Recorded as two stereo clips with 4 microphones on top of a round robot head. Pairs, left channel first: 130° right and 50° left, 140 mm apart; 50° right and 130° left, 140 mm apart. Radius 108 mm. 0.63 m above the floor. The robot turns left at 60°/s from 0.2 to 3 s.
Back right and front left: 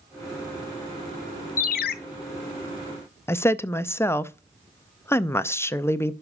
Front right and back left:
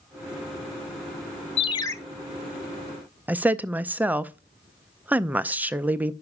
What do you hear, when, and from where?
1.6 s a ringtone: 100° right, 0.5 m; by 1.9 s 125° right, 0.5 m
3.3 s a woman speaking: 170° right, 0.5 m